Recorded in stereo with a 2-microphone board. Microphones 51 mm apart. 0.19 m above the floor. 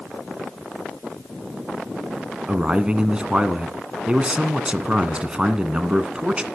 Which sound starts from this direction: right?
A man speaking, at 2.5 s.